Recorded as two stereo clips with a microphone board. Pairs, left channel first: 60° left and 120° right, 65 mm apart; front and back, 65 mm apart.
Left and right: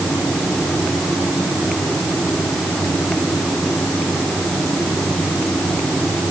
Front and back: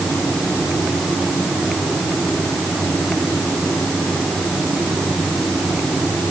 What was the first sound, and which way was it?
Only background noise.